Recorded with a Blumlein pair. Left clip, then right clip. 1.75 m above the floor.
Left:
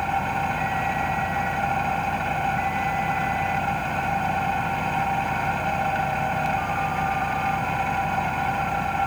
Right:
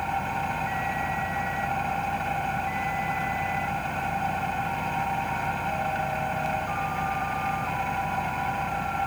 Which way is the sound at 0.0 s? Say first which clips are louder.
Left 4 dB; 15° left.